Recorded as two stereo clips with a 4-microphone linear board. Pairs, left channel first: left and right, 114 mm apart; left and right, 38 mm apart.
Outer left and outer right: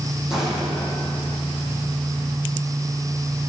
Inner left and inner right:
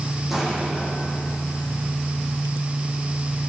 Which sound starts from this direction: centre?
An explosion, at 0.3 s.